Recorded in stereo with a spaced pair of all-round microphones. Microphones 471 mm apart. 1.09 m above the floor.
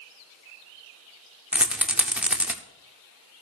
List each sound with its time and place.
1.5 s a rattle: 5° right (ahead or behind), 0.7 m